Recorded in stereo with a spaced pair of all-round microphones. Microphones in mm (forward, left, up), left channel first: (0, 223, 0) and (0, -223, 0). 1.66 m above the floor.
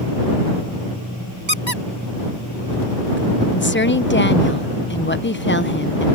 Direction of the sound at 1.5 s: 85° right.